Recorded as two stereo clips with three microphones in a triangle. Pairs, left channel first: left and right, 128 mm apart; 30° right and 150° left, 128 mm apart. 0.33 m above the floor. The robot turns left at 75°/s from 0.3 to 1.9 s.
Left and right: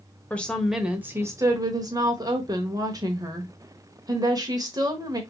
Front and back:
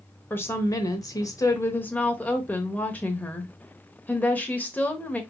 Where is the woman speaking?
25° left, 0.9 m; by 5.2 s 95° right, 0.9 m.